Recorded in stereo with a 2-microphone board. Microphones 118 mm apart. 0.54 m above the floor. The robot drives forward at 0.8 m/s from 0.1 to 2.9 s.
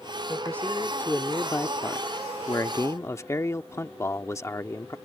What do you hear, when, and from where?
0.3 s a man speaking: 15° left (ahead or behind); by 5.0 s 25° left (ahead or behind)